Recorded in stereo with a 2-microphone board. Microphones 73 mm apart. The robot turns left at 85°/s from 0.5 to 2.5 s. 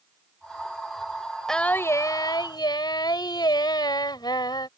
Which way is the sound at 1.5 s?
175° left.